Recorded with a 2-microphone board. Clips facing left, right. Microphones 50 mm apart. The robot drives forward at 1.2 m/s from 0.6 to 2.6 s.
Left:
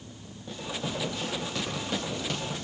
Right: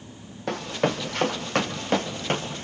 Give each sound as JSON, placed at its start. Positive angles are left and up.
{"t": 0.5, "sound": "running footsteps", "side_deg": -70, "distance_m": 3.5}